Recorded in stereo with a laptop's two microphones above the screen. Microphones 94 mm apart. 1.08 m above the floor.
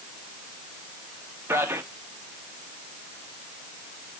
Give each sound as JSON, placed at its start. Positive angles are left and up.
{"t": 1.5, "sound": "a man speaking", "side_deg": -25, "distance_m": 1.7}